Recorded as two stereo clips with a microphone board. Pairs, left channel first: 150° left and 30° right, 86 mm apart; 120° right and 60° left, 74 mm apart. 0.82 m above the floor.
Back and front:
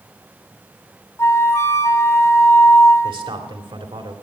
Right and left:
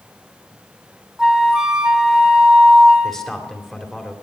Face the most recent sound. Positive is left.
turn(degrees=-35)